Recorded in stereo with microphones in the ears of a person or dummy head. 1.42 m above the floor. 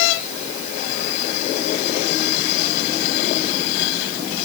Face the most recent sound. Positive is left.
No sound to turn to.